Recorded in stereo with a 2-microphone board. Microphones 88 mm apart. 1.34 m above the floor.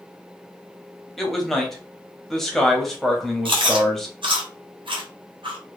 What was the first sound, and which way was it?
A man speaking, 5° left (ahead or behind).